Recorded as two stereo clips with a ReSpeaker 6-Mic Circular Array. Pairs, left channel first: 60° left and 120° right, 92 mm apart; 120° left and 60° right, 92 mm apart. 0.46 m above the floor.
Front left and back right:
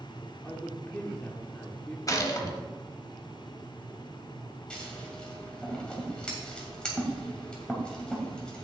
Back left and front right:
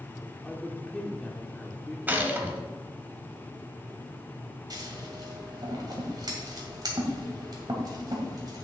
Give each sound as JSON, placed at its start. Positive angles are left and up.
{"t": 0.4, "sound": "a woman speaking", "azimuth_deg": 60, "distance_m": 1.1}
{"t": 2.1, "sound": "a gunshot", "azimuth_deg": 10, "distance_m": 1.1}
{"t": 4.7, "sound": "scissors", "azimuth_deg": -20, "distance_m": 2.0}